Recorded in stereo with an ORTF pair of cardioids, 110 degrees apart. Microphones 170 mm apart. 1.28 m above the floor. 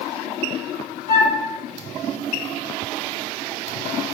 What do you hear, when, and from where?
1.1 s a flute: 60° left, 1.6 m